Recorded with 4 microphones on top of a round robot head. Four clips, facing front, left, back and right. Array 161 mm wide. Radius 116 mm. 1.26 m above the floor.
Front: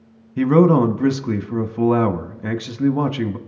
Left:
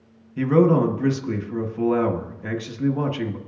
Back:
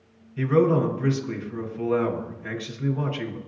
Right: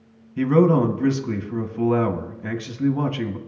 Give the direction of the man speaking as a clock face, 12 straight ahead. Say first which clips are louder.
Even, front 6 dB; 12 o'clock.